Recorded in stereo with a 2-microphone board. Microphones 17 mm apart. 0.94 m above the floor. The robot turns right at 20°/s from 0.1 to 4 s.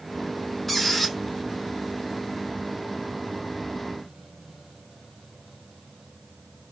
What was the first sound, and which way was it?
A squeak, 10° left (ahead or behind).